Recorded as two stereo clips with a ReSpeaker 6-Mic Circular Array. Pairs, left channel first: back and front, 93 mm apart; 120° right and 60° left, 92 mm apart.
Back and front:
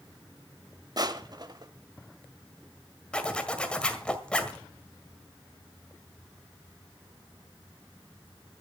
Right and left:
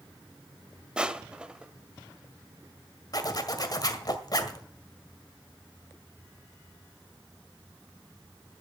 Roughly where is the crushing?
Ahead.